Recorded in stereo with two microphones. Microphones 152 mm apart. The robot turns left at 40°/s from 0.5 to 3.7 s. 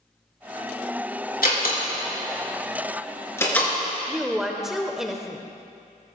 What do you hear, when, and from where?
1.4 s a door slam: 80° left, 3 m; by 3.7 s 5° left (ahead or behind), 3 m
4.1 s a woman speaking: 5° right (ahead or behind), 0.8 m